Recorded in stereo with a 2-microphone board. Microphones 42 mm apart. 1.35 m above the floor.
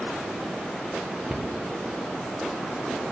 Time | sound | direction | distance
1.3 | a cupboard door | 30° right (ahead or behind) | 0.5 m